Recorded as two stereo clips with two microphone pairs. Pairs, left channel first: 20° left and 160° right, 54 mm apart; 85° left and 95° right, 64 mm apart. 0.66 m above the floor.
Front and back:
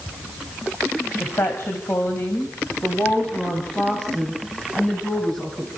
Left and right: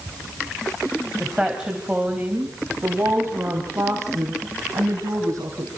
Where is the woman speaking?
15° right, 3 m; by 5.7 s 65° right, 4.5 m.